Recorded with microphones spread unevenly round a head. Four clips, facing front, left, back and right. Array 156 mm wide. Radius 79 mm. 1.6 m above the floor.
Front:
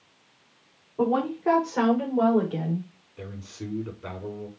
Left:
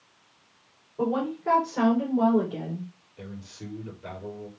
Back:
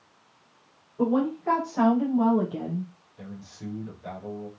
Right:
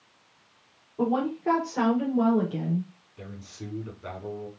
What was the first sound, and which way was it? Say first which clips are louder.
A woman speaking: right 1 dB, even; straight ahead.